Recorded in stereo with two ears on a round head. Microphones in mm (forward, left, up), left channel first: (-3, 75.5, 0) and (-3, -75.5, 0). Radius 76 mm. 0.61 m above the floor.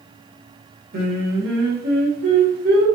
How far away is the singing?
About 1.7 m.